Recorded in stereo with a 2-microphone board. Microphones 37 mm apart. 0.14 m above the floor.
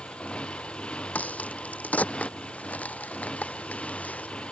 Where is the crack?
45° left (ahead or behind).